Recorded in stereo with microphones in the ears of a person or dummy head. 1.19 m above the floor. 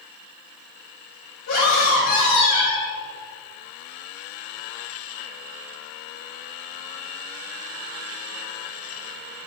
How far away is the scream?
About 3 m.